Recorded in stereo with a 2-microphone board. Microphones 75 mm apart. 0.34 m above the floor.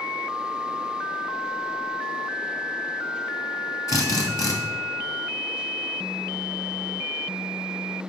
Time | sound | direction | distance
3.9 | a drill | 55° left (ahead or behind) | 2 m